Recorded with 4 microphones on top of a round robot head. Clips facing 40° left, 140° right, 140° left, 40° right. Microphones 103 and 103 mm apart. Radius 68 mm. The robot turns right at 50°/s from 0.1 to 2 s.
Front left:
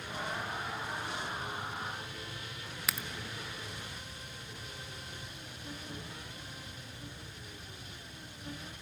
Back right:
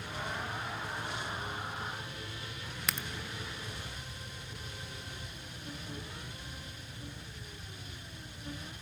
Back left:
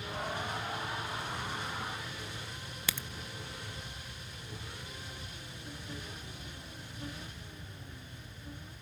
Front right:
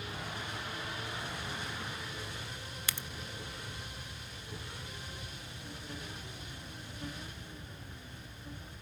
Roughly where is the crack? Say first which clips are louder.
Even, back left 3 dB; behind left.